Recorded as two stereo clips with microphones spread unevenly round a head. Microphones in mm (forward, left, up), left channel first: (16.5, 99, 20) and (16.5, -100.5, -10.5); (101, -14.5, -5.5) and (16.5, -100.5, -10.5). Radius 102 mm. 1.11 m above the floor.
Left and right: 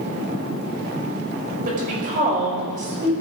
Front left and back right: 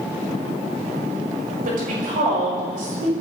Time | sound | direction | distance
1.6 | a woman speaking | 145° right | 6 m